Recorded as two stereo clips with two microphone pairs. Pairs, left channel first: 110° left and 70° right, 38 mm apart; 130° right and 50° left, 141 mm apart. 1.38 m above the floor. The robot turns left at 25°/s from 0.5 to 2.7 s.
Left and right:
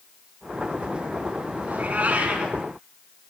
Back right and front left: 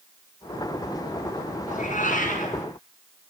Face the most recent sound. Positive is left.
turn(degrees=-135)